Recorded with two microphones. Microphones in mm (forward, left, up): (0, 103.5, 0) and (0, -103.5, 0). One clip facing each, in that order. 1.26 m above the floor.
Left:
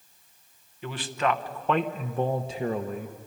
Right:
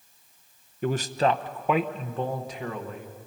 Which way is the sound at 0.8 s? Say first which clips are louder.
Right 4 dB; 50° right (ahead or behind).